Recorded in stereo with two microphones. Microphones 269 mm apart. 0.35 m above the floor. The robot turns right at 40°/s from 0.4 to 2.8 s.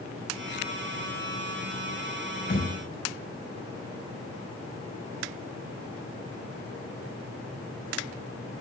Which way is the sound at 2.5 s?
40° left (ahead or behind).